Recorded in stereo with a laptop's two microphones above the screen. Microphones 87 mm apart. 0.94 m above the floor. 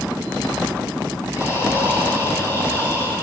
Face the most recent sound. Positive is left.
turn(degrees=30)  # may be behind; listen again after turning